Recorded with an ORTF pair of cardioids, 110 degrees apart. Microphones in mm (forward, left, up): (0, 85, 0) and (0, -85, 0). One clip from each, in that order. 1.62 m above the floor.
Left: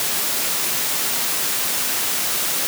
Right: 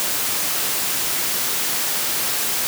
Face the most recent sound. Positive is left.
No sound to turn to.